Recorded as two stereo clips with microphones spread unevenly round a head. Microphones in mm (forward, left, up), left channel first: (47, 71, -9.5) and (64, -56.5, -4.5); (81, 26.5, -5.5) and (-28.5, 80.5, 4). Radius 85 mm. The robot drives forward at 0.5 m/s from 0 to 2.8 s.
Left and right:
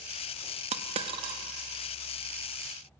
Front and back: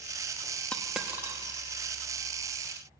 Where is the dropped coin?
110° right, 0.6 m; by 1.4 s 140° right, 0.7 m.